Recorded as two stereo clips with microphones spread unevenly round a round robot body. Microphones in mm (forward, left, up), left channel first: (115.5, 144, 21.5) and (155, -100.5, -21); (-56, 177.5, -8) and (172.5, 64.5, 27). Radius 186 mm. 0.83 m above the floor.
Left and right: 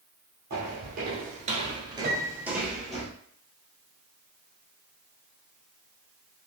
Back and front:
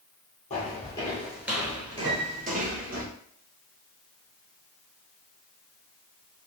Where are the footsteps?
140° right, 1.1 m; by 3.0 s 15° left, 1.5 m.